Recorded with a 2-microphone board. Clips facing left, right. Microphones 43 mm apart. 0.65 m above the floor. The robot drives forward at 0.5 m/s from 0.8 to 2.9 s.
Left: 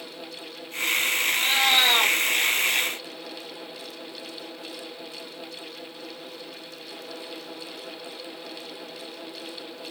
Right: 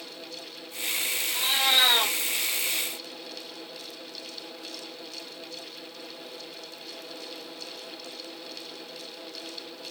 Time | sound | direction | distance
1.3 | a cat meowing | 15° left (ahead or behind) | 3.5 m